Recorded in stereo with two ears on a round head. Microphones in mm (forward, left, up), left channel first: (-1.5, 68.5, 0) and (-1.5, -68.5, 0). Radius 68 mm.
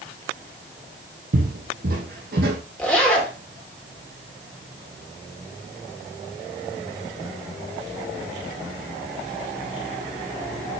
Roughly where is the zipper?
Centre.